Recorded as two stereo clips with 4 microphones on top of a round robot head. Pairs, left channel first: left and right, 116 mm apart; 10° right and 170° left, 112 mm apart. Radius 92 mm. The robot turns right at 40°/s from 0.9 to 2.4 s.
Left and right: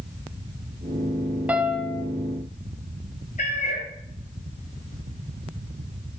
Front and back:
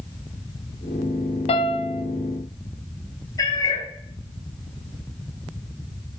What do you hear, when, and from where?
1.5 s a piano: 15° right, 0.7 m; by 2.0 s 10° left, 0.7 m
3.4 s a cat meowing: 45° left, 2 m